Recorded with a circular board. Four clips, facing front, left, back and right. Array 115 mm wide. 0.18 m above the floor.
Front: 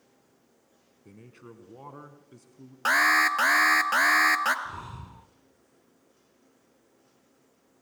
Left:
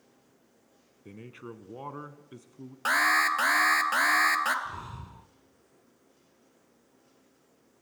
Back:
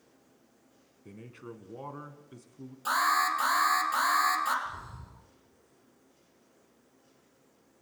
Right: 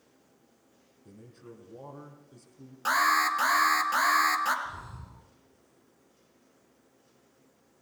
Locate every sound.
1.1 s a man speaking: 100° left, 1.5 m
2.9 s an alarm: 15° left, 1.9 m
4.7 s breathing: 30° left, 0.7 m